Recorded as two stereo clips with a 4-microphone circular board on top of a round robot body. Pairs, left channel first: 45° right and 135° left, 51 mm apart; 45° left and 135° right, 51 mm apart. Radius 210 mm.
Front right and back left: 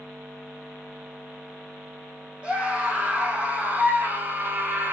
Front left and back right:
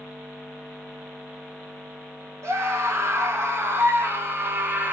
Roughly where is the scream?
Behind.